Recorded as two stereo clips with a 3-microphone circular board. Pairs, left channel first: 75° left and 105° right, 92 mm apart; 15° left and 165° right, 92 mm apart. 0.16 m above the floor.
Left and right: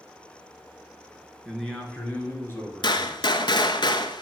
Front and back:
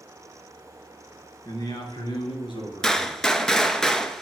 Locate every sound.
1.4 s a man speaking: 10° right, 2.5 m; by 3.8 s 30° left, 4 m
2.8 s a gunshot: 100° left, 0.8 m